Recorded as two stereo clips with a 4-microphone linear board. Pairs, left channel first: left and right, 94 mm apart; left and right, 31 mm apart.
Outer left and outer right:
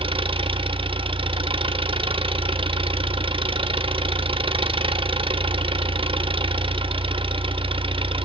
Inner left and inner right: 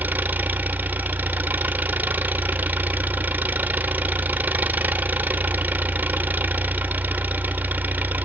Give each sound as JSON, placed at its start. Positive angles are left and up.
{"t": 0.0, "sound": "an engine running", "side_deg": -70, "distance_m": 0.8}